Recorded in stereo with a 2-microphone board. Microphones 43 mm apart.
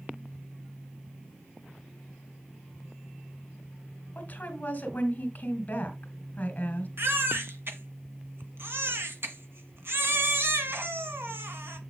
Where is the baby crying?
70° right (ahead or behind), 1.6 m.